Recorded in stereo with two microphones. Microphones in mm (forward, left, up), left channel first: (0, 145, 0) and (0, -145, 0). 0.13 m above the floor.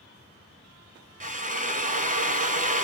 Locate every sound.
1.2 s a drill: 25° right (ahead or behind), 0.5 m